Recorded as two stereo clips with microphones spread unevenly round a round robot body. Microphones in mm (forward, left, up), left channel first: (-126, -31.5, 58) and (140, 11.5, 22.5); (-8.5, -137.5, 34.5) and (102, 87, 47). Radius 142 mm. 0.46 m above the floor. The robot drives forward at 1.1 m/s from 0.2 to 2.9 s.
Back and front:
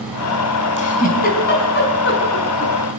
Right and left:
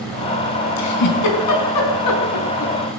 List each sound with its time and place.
0.8 s a giggle: 105° right, 5 m; by 2.7 s 125° right, 6 m